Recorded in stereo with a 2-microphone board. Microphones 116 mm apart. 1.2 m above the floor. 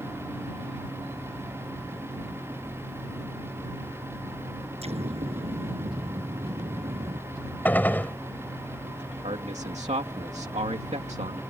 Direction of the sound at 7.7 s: 15° left (ahead or behind).